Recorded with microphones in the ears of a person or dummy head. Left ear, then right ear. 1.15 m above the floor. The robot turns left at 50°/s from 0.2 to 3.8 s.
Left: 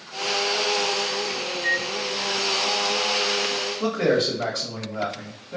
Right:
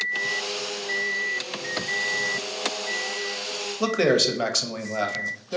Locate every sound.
1.5 s a microwave: 75° left (ahead or behind), 2 m; by 1.9 s 55° left (ahead or behind), 2 m
3.8 s a man speaking: 85° right, 0.9 m